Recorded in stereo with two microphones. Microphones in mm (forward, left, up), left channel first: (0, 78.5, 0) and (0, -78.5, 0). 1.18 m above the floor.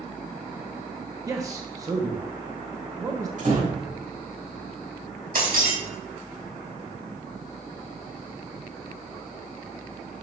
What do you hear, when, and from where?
1.3 s a man speaking: 20° right (ahead or behind), 0.9 m
3.4 s a door slam: 60° right (ahead or behind), 4.5 m
5.3 s breaking glass: 80° right, 3 m